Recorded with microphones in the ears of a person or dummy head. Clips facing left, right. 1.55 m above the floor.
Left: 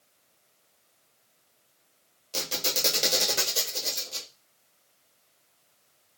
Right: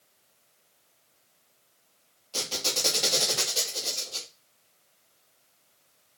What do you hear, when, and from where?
2.3 s a squeak: 20° left (ahead or behind), 1.0 m